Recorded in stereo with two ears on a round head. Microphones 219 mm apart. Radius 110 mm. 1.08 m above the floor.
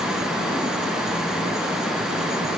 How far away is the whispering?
I don't hear whispering.